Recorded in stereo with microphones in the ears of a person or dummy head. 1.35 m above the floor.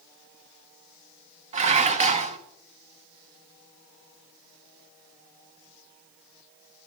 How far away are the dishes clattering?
About 0.6 m.